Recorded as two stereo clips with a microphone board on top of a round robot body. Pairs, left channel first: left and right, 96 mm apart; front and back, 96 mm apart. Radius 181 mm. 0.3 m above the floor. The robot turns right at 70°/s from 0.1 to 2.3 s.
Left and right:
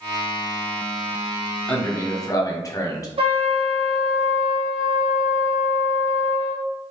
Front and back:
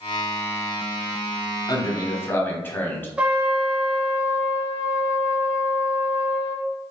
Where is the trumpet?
105° right, 0.9 m.